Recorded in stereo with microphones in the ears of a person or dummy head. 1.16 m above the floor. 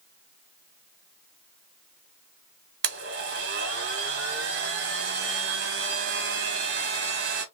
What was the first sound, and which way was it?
A blender, 60° right (ahead or behind).